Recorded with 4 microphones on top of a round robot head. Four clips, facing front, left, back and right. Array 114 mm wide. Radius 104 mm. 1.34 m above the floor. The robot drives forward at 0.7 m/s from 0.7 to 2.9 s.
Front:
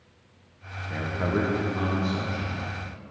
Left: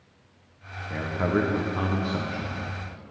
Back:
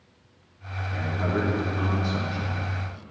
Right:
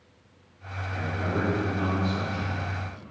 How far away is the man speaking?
About 1.1 m.